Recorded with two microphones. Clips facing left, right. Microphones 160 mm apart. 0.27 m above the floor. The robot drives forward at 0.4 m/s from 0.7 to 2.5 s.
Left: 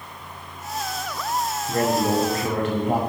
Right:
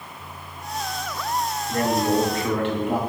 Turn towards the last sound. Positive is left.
turn(degrees=45)  # may be behind; listen again after turning